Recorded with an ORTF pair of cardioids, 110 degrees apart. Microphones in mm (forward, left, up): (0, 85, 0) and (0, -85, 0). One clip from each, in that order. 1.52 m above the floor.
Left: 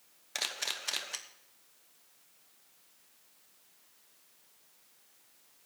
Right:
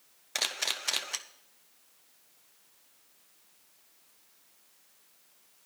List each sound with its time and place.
0.3 s a camera shutter: 15° right, 1.0 m